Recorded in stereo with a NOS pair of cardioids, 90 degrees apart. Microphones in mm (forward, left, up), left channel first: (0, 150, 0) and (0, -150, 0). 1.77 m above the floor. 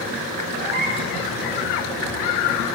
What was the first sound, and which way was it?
A cat meowing, 35° right.